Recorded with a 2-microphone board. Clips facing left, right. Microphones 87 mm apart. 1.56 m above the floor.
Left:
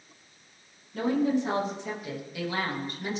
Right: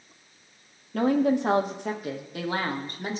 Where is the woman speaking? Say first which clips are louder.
Right 3 dB; 70° right (ahead or behind), 1.2 m; by 3.2 s 40° right (ahead or behind), 2 m.